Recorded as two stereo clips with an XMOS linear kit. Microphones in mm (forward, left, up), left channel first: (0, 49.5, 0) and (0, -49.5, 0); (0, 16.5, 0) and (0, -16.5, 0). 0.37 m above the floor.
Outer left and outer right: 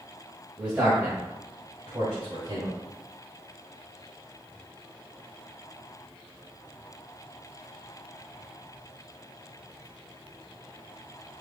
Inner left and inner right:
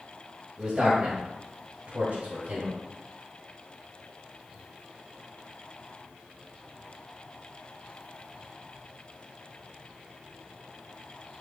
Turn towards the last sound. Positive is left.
turn(degrees=-50)  # may be behind; listen again after turning